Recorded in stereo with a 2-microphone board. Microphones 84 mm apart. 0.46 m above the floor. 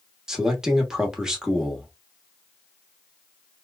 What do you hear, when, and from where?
0.3 s a man speaking: 10° right (ahead or behind), 1.1 m